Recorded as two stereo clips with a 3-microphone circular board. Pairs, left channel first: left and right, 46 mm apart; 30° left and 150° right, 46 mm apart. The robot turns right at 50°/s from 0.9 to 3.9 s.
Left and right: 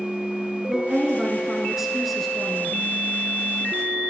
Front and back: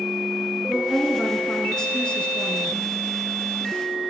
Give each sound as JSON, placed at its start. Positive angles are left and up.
{"t": 0.7, "sound": "a woman speaking", "azimuth_deg": -60, "distance_m": 1.4}